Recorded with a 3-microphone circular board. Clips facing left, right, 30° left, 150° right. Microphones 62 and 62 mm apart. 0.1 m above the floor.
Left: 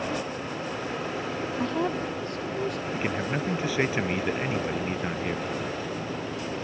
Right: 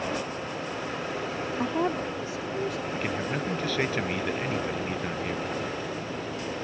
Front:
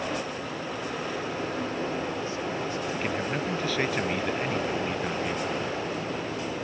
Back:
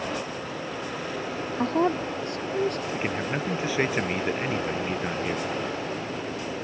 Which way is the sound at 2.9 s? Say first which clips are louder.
Left 1 dB, back 1 dB; 150° left.